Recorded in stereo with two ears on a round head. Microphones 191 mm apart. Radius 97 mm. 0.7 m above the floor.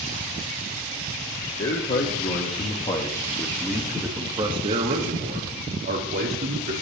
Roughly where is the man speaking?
Left.